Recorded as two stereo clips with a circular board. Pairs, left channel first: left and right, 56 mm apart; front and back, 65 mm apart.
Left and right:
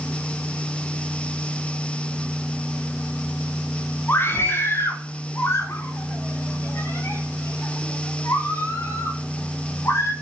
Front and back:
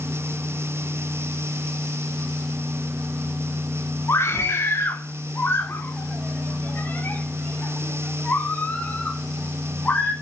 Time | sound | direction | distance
4.1 | a scream | 45° left | 3 m